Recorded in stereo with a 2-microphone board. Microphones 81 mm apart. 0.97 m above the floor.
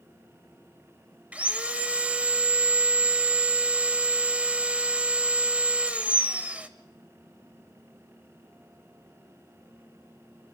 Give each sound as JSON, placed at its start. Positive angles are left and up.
{"t": 1.3, "sound": "sawing", "side_deg": -15, "distance_m": 0.9}